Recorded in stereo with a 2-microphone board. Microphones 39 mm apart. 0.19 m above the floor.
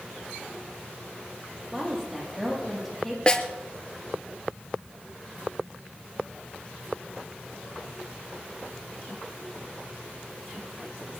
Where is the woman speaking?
5° left (ahead or behind), 6.5 m.